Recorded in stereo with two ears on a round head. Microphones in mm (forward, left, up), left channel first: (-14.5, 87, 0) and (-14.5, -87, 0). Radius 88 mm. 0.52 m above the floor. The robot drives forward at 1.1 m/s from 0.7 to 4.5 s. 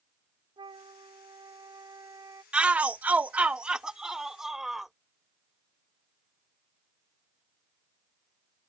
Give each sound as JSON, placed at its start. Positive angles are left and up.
{"t": 0.6, "sound": "a flute", "side_deg": -25}
{"t": 2.5, "sound": "a shout", "side_deg": -5}